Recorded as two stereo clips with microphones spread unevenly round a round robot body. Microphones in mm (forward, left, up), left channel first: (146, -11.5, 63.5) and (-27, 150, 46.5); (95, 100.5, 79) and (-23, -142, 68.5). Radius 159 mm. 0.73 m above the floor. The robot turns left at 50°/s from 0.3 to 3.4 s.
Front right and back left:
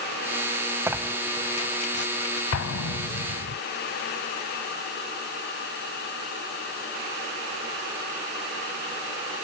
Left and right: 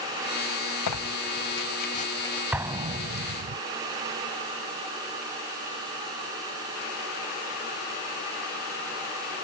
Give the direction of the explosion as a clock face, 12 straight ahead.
1 o'clock.